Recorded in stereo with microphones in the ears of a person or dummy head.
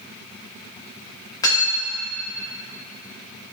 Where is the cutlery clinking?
20° left (ahead or behind), 1.6 m.